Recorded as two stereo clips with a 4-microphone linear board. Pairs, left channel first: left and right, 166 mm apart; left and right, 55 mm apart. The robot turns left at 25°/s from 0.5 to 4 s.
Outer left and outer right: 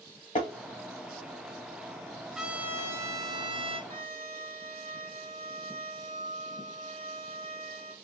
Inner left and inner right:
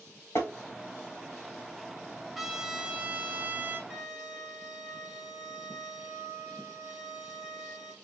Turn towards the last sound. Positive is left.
turn(degrees=15)  # may be behind; listen again after turning